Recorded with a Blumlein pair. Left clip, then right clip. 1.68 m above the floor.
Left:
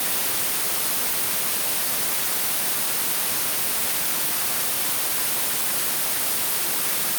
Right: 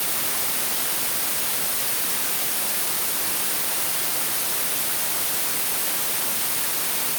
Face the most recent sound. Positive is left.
No sound to turn to.